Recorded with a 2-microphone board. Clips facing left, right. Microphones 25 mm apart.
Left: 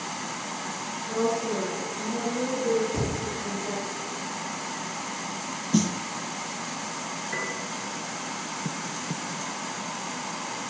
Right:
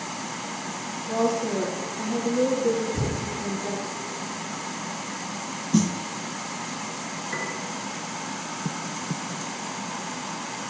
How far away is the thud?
About 4 m.